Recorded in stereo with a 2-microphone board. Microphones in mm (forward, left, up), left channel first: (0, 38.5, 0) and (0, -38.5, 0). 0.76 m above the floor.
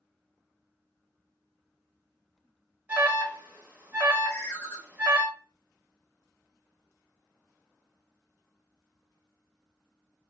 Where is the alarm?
25° right (ahead or behind), 0.7 m.